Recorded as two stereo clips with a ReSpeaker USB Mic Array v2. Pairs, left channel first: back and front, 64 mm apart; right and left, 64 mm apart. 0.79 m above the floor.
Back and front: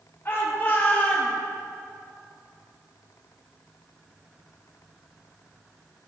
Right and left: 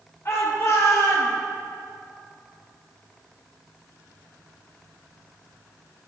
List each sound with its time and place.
0.2 s a shout: 130° right, 3 m; by 1.3 s 110° right, 3.5 m